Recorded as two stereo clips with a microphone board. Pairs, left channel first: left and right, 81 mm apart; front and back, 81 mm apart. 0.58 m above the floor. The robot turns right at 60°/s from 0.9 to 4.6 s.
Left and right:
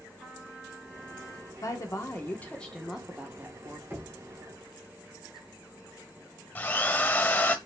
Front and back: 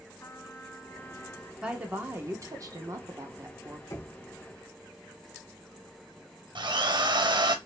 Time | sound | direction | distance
0.2 | a trumpet | straight ahead | 1.4 m
1.6 | a woman speaking | 105° left | 1.3 m
3.9 | knocking | 30° right | 2.5 m
6.5 | a drill | 160° left | 0.9 m